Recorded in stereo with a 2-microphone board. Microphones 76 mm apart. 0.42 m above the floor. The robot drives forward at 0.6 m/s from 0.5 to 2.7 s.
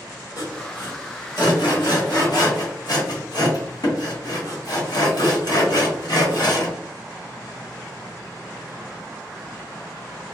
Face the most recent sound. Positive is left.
turn(degrees=65)  # may be behind; listen again after turning